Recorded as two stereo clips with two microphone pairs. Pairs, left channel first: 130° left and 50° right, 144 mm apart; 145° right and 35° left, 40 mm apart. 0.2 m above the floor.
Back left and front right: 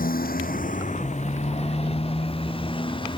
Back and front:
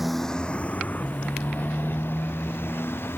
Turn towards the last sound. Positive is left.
turn(degrees=-170)